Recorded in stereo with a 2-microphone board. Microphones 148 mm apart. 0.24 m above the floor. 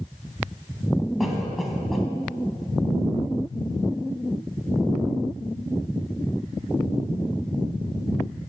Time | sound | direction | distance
1.2 | a cough | centre (ahead or behind) | 1.3 m